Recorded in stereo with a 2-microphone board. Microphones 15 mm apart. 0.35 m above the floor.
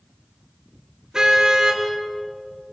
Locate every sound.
1.1 s a car horn: 45° right (ahead or behind), 3.5 m